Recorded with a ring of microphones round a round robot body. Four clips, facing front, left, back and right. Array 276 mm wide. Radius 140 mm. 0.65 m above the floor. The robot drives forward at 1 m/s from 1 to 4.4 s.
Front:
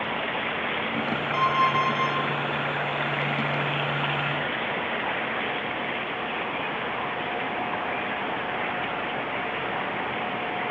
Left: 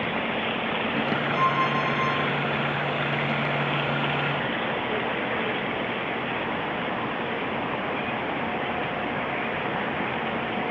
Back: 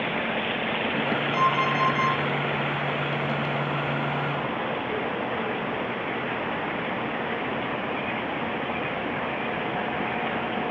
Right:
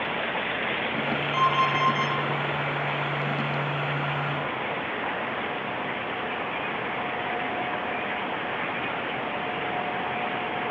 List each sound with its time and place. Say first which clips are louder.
1.3 s an alarm clock: right 2 dB, front 2 dB; 120° right, 7.5 m; by 2.2 s 125° right, 8 m